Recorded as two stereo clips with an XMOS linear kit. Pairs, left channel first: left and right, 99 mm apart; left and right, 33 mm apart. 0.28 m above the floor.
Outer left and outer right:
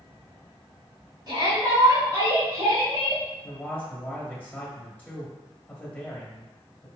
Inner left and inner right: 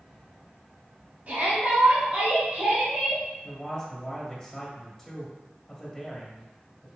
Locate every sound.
1.3 s a shout: 45° right (ahead or behind), 1.9 m; by 3.2 s 25° right (ahead or behind), 1.3 m
3.4 s a man speaking: 15° left (ahead or behind), 1.3 m